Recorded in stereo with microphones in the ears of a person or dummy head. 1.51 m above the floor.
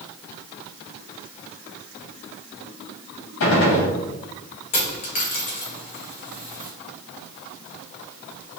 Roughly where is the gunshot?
Left.